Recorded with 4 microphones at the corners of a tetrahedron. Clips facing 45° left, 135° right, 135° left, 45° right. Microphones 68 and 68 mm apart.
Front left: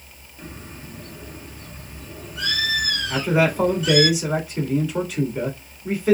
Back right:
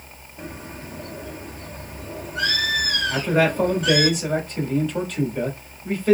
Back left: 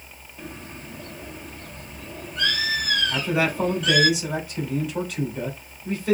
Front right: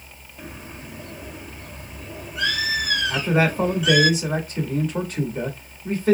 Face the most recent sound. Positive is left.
turn(degrees=-30)